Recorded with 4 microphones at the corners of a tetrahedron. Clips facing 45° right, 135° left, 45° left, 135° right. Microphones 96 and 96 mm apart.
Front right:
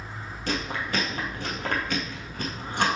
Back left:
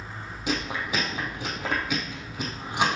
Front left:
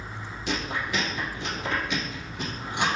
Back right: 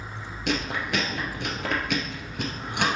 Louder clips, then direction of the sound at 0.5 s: Back left 1 dB, back right 2 dB; 145° right.